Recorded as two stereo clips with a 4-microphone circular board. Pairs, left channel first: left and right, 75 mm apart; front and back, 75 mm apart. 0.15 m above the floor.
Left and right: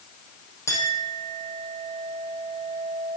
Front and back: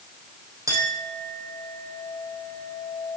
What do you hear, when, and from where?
0.7 s a clink: 135° left, 4.5 m